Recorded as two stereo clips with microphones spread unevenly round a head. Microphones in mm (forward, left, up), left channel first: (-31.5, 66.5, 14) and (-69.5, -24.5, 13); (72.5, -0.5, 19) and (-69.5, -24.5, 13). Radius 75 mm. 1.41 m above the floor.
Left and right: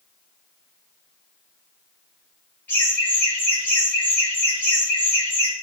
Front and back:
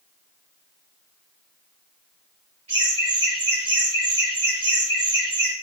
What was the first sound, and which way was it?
Laughter, 135° left.